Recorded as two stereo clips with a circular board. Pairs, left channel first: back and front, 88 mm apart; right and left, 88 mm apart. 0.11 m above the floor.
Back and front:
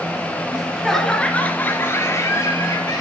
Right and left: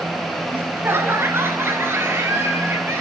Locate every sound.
0.5 s laughter: 70° left, 1.4 m; by 3.0 s 145° left, 2.5 m